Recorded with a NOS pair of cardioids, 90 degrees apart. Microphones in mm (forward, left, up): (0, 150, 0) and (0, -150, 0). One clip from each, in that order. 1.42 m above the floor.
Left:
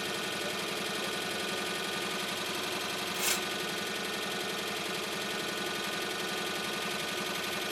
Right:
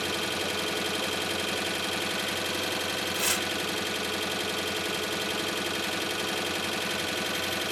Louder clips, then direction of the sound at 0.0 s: Right 5 dB; 35° right.